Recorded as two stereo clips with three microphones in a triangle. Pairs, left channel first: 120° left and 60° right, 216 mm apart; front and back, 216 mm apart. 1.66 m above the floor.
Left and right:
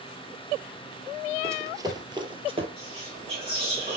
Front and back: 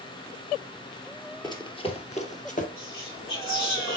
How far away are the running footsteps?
About 1.7 m.